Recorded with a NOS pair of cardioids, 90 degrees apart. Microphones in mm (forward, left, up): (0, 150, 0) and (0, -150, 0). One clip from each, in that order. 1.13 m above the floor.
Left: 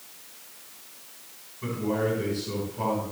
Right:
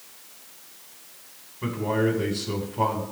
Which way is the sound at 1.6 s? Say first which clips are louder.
Right 3 dB; 50° right.